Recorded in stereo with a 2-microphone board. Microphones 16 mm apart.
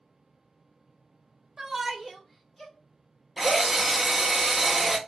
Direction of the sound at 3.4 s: 10° right (ahead or behind).